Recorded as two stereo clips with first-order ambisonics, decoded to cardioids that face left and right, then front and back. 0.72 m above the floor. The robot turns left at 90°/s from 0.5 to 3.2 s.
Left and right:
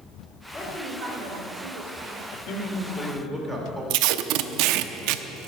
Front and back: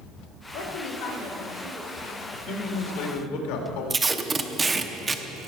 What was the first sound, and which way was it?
A woman speaking, 10° left.